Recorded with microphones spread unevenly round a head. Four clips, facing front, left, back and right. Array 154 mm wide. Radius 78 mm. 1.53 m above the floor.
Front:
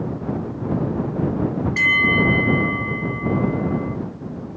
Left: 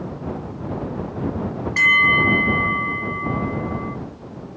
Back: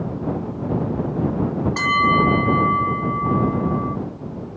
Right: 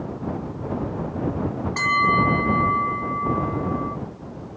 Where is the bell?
155° right.